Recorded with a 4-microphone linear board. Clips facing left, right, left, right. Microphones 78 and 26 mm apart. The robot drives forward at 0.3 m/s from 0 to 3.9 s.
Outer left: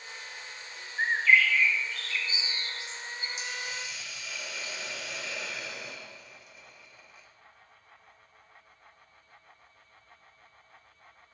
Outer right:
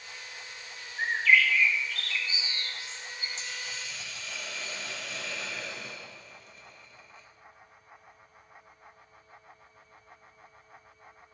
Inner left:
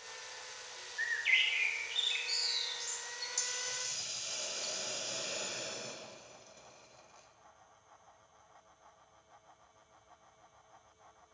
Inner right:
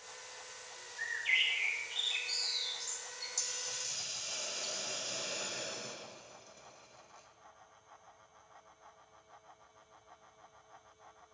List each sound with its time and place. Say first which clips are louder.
1.0 s a bird: outer left 1 dB, inner left 1 dB; 35° left (ahead or behind), 0.8 m; by 3.3 s 20° left (ahead or behind), 1.4 m
3.4 s a hiss: outer left 3 dB, inner left 1 dB; 10° left (ahead or behind), 0.8 m